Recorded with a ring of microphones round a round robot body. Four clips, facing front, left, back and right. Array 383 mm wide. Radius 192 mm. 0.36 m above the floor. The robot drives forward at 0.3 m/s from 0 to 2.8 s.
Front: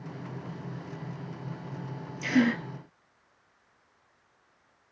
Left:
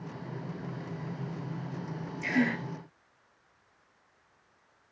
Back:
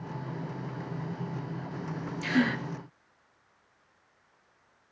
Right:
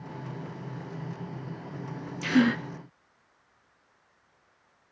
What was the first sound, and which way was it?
A gasp, 95° right.